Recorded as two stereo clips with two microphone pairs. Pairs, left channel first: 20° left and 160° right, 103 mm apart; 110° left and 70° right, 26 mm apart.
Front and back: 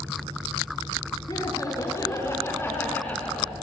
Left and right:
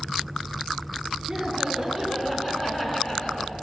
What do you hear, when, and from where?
1.3 s laughter: straight ahead, 1.7 m; by 3.5 s 90° left, 1.5 m